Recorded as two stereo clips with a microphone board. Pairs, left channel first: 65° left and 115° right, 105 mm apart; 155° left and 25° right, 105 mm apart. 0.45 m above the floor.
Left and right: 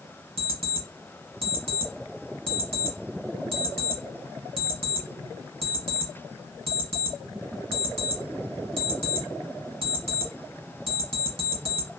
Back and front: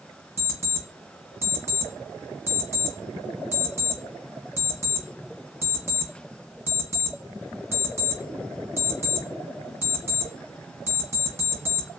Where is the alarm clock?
90° right, 1.4 m.